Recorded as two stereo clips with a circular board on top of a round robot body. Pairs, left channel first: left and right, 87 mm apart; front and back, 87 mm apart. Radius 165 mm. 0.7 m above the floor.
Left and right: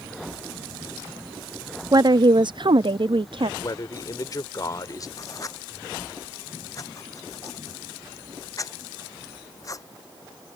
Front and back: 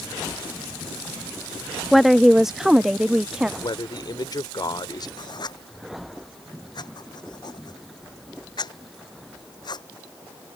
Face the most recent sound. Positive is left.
turn(degrees=40)